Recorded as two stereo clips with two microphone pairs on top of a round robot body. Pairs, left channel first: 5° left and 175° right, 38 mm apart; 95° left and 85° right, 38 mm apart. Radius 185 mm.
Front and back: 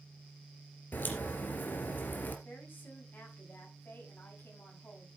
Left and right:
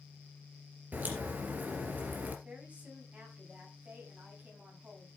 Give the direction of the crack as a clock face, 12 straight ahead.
1 o'clock.